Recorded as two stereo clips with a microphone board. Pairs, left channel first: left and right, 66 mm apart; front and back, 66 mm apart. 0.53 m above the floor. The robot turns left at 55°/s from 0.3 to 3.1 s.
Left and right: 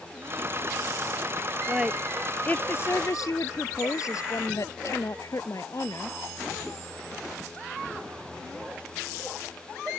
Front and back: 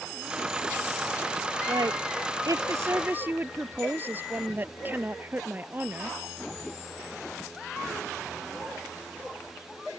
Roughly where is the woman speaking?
Behind.